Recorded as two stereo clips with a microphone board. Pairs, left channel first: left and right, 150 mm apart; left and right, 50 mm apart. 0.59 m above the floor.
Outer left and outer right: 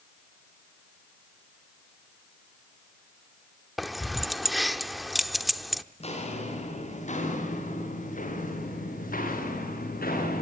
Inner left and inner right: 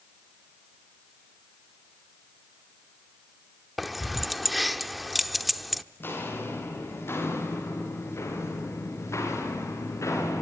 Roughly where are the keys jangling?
Centre.